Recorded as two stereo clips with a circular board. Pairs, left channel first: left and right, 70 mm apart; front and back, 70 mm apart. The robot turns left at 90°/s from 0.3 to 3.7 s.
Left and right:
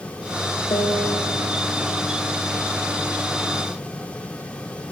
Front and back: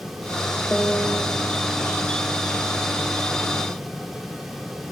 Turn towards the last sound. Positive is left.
turn(degrees=175)